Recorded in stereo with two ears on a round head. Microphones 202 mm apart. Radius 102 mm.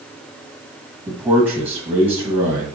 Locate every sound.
1.1 s a man speaking: 10° right (ahead or behind), 1.7 m